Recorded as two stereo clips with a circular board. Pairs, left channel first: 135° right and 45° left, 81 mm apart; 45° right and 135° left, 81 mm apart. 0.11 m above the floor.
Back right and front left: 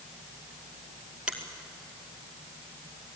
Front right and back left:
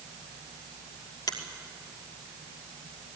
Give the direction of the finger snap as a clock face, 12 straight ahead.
1 o'clock.